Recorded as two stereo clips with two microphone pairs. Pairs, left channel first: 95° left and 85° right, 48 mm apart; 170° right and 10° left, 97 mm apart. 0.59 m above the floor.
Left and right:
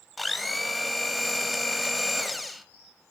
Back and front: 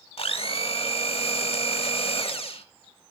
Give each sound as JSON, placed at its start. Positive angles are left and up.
{"t": 0.2, "sound": "a blender", "azimuth_deg": -175, "distance_m": 0.7}